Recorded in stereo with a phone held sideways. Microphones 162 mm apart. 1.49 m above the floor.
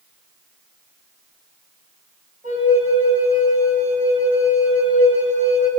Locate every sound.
2.4 s a flute: 45° right (ahead or behind), 6.5 m